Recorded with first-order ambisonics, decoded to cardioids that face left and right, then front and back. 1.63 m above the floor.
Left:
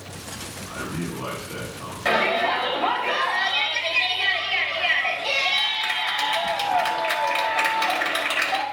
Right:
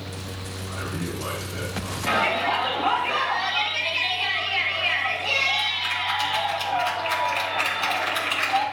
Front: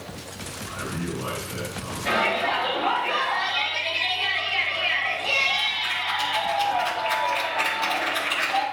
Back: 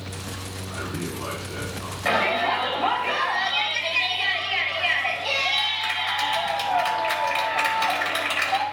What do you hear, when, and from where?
0.7 s a man speaking: 100° left, 3.5 m
2.0 s a shout: 115° left, 3.5 m